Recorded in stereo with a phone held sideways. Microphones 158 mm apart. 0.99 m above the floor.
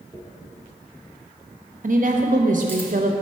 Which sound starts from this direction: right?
A woman speaking, at 1.8 s.